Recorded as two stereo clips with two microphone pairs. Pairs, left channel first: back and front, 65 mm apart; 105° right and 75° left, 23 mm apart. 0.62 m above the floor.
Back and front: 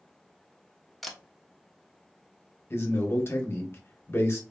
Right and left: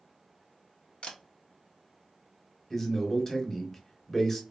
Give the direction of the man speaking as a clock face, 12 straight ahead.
6 o'clock.